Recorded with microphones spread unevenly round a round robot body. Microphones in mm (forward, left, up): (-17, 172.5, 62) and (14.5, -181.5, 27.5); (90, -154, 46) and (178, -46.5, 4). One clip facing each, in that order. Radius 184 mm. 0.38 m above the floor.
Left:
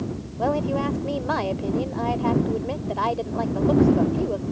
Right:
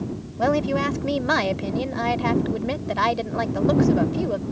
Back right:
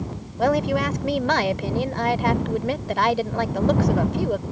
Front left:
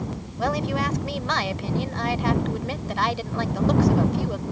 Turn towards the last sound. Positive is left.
turn(degrees=-100)